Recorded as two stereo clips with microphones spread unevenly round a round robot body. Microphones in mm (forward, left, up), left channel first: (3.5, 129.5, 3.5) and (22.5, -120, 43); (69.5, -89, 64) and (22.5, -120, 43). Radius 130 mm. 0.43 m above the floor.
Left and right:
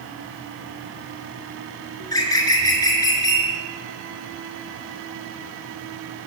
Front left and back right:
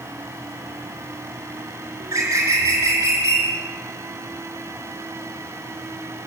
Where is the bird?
170° left, 3.5 m.